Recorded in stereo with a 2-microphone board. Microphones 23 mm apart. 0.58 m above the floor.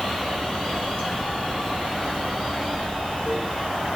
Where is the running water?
70° left (ahead or behind), 1.3 m.